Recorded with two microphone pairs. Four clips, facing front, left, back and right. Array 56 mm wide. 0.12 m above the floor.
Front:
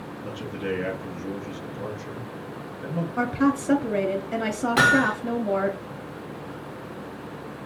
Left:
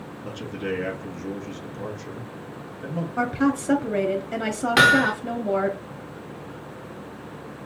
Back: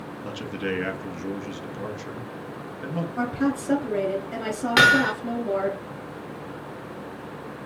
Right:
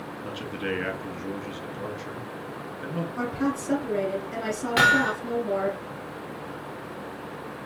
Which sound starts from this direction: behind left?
Hammering, at 4.8 s.